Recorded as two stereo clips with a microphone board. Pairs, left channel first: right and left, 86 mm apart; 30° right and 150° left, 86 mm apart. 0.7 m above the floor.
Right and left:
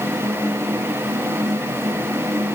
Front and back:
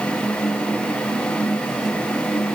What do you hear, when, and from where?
Only background noise.